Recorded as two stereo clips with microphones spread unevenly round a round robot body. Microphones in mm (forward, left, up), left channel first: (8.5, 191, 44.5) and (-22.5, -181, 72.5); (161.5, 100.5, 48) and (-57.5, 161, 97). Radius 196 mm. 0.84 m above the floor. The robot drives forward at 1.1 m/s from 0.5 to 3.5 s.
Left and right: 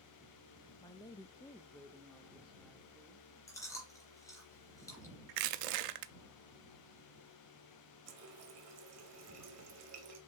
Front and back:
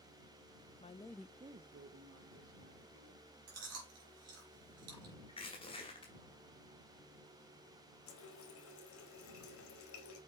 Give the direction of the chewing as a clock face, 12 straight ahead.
6 o'clock.